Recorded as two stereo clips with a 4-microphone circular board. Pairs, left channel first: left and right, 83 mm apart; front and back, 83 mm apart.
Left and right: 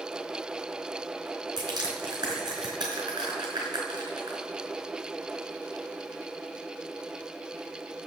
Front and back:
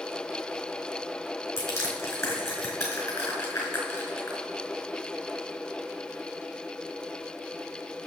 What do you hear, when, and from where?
1.6 s crushing: 55° right, 4.5 m